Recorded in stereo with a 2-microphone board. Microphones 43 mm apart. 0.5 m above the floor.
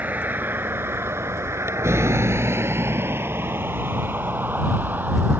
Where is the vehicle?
40° right (ahead or behind).